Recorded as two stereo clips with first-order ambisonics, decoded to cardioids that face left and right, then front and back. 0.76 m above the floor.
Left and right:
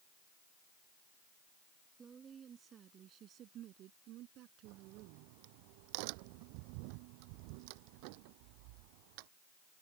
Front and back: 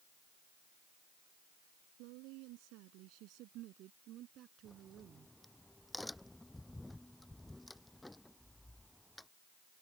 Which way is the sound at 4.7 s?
85° right.